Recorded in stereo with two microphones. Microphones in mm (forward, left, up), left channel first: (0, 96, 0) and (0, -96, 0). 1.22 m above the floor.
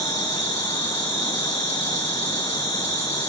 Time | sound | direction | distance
0.0 | an insect | 75° left (ahead or behind) | 2.5 m